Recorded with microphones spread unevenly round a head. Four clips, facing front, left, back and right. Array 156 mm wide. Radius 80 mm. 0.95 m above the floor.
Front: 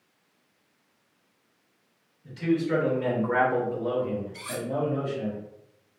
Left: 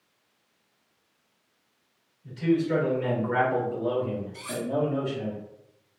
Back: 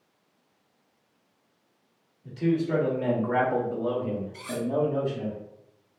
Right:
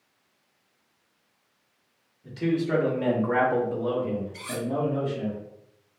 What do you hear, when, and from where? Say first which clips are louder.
2.2 s a man speaking: left 2 dB, even; 105° right, 1.2 m; by 5.3 s 155° left, 1.3 m
4.3 s cutlery clinking: even, back 2 dB; 175° right, 1.7 m